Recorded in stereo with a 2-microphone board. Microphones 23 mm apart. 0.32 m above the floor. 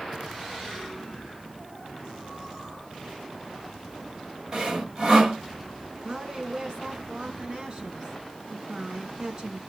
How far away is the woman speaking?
About 4 m.